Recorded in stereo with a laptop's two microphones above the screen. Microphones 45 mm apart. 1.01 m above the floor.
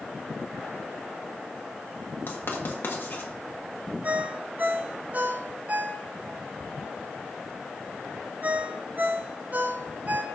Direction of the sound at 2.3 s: 55° left (ahead or behind).